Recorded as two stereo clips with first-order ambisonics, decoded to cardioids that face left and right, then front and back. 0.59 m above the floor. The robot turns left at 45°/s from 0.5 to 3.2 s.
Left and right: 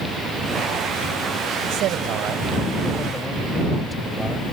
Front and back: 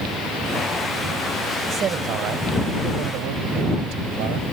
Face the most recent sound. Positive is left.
turn(degrees=175)